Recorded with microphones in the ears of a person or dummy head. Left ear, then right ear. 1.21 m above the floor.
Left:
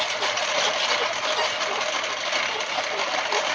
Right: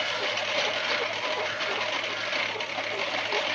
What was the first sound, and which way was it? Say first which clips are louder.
A lawn mower: left 4 dB; 45° left (ahead or behind).